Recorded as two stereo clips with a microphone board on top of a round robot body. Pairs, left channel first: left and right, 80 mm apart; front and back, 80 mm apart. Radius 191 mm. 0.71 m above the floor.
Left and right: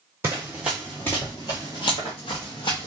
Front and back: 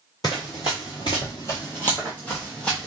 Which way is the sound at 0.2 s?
35° right.